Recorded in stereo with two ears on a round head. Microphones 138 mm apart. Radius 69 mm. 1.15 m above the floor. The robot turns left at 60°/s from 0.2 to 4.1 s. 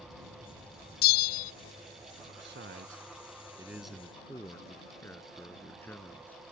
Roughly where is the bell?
Left.